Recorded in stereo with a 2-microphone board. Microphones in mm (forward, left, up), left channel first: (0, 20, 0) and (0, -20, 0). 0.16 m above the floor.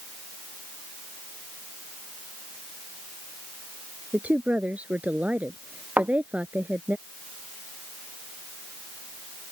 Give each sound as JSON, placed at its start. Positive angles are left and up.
{"t": 4.1, "sound": "a woman speaking", "side_deg": -35}
{"t": 6.0, "sound": "a thud", "side_deg": -40}